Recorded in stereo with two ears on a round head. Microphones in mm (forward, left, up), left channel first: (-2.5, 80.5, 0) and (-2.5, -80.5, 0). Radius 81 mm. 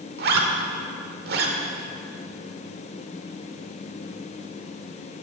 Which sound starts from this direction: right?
A zipper, at 0.2 s.